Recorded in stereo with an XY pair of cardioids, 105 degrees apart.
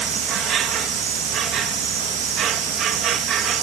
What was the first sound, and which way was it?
An insect, 65° right.